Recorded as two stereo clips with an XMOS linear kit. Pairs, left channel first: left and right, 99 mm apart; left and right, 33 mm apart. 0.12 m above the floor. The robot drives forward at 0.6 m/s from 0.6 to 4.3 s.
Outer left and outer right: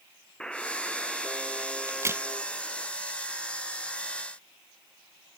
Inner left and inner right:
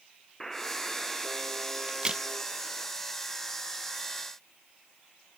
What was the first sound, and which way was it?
A buzzer, 10° left (ahead or behind).